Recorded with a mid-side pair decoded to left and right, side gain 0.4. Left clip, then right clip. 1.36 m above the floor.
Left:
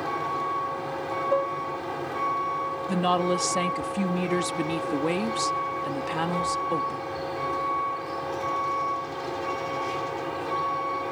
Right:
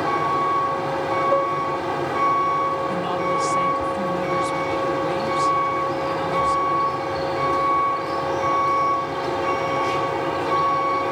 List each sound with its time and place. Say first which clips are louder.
0.0 s a vehicle: right 8 dB; 55° right
1.3 s dishes clattering: right 2 dB; 25° right
2.9 s a woman speaking: right 2 dB; 50° left